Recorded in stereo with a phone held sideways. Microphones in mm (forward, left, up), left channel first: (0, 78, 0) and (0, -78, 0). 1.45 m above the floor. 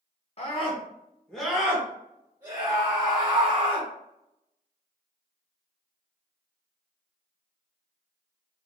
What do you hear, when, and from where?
0.4 s a scream: 45° left (ahead or behind), 0.8 m; by 3.9 s 50° right (ahead or behind), 1.6 m